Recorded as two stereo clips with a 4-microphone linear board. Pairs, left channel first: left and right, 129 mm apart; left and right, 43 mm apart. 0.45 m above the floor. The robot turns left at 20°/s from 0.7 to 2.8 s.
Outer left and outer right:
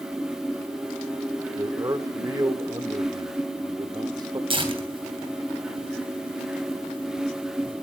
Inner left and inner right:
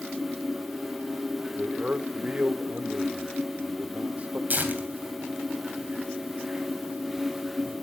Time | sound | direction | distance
1.6 | a man speaking | 25° right (ahead or behind) | 1.0 m
4.5 | tearing paper | 40° right (ahead or behind) | 3 m